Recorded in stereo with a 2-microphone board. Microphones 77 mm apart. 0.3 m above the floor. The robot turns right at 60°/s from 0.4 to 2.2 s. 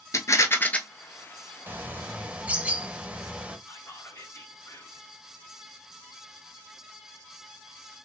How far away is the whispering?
About 2.5 m.